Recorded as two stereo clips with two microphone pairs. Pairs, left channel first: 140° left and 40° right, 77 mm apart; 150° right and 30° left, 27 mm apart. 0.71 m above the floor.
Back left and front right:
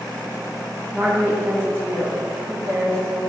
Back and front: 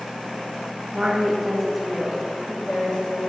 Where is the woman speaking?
15° left, 0.8 m; by 3.2 s 95° right, 1.3 m.